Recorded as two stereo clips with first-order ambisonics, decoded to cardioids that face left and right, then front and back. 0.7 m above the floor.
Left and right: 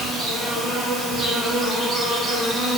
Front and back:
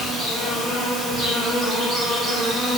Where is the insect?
145° right, 1.6 m.